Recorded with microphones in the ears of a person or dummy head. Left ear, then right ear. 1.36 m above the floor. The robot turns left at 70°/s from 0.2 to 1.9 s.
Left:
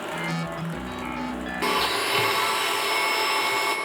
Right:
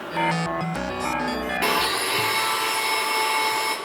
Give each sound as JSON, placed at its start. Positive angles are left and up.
{"t": 1.6, "sound": "a blender", "side_deg": -15, "distance_m": 0.7}